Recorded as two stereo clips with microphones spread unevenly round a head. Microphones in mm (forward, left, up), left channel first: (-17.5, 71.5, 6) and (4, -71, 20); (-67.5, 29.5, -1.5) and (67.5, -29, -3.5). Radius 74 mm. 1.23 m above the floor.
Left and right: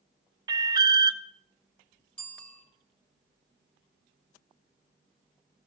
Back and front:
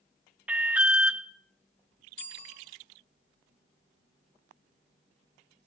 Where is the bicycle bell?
Straight behind, 4 m.